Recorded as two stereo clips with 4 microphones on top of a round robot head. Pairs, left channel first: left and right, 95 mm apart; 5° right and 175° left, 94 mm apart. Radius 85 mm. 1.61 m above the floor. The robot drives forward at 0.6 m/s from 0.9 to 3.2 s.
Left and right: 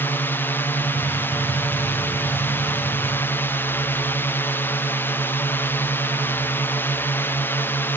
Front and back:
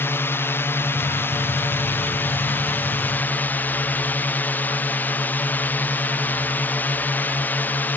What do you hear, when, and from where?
0.0 s a drone: 40° left; by 8.0 s 45° left